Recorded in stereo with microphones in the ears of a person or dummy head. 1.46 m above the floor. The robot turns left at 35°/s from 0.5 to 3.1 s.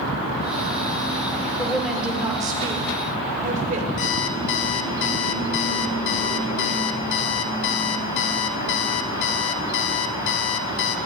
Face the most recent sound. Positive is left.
turn(degrees=70)  # may be behind; listen again after turning